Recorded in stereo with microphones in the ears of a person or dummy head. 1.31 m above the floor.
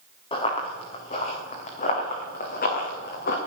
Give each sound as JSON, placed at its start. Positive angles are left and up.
{"t": 0.3, "sound": "running footsteps", "side_deg": 40, "distance_m": 3.5}